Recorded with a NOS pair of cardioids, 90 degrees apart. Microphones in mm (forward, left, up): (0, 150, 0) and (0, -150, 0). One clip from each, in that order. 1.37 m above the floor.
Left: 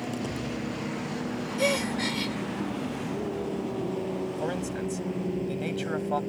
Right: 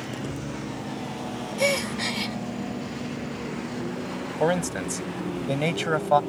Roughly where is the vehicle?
Ahead.